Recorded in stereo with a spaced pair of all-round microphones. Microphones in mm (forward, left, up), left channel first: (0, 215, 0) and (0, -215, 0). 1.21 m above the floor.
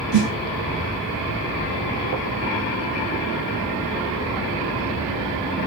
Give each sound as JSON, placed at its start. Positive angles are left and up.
{"t": 0.1, "sound": "a snare drum", "side_deg": -80, "distance_m": 2.5}